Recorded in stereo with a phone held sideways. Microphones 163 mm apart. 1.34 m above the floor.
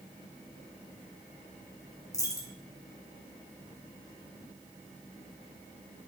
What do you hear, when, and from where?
2.1 s a dropped coin: 20° left (ahead or behind), 0.6 m